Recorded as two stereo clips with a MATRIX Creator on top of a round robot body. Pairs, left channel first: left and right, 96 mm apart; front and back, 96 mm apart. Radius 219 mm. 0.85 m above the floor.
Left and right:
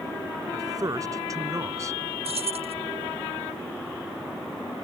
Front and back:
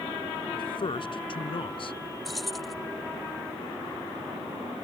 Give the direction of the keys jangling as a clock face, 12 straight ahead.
3 o'clock.